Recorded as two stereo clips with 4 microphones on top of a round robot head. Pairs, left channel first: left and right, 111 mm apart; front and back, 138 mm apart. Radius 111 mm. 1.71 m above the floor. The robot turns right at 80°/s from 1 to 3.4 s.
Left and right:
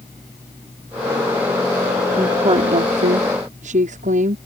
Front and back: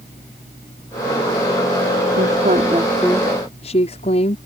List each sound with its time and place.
2.2 s a woman speaking: 155° right; by 4.4 s 60° right